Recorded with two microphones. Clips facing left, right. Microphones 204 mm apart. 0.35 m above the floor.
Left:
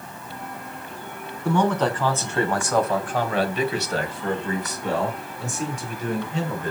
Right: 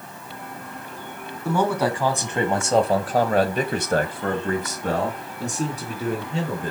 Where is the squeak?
No squeak in this recording.